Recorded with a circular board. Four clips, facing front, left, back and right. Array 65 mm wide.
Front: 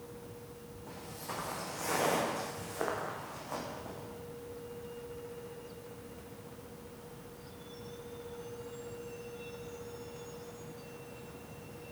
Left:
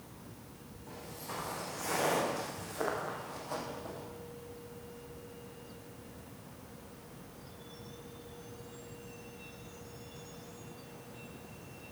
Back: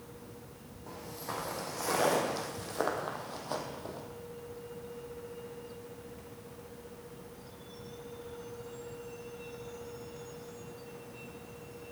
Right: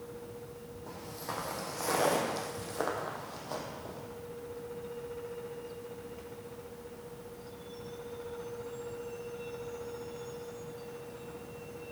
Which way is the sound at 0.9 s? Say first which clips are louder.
Right 3 dB, back 3 dB; 125° right.